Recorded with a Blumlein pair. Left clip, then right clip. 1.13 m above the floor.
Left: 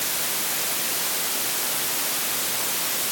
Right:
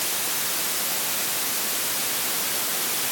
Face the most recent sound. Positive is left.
No sound to turn to.